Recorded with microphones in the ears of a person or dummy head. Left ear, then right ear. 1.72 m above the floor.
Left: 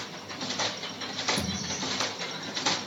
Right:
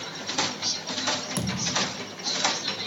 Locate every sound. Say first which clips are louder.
1.4 s a thud: right 5 dB; 30° right (ahead or behind), 4 m